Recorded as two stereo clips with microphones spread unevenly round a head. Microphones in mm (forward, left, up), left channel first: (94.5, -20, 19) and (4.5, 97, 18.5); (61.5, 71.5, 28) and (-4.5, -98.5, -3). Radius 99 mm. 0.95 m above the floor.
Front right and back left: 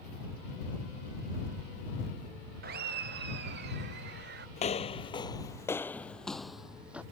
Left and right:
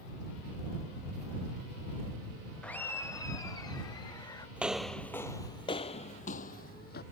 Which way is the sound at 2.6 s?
160° left.